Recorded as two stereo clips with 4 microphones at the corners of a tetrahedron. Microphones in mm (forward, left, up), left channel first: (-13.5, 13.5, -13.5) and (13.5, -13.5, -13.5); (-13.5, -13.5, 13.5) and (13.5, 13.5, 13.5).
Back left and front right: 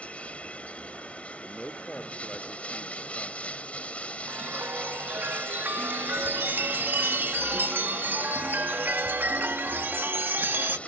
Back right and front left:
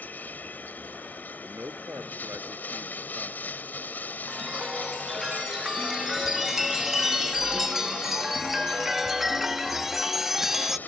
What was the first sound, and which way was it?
Running water, 170° right.